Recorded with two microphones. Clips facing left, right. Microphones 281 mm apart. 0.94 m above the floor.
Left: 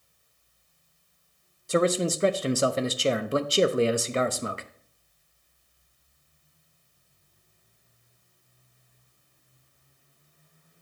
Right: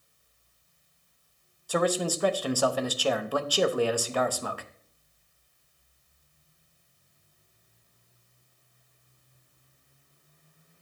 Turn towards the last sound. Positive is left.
turn(degrees=25)  # may be behind; listen again after turning